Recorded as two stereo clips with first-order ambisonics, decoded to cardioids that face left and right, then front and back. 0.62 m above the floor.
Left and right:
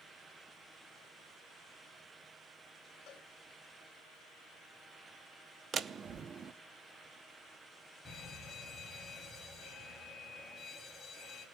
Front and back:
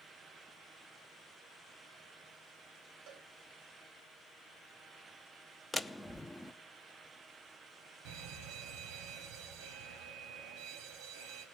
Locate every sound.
3.1 s a cowbell: 140° left, 2.5 m
5.7 s a door slam: 80° right, 0.5 m
8.1 s an alarm: 175° left, 4 m